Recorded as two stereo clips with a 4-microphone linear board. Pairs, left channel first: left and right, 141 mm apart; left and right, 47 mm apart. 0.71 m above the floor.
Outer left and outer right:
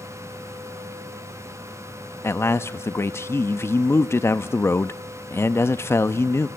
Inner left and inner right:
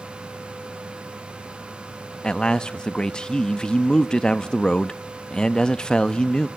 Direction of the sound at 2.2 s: 20° left (ahead or behind).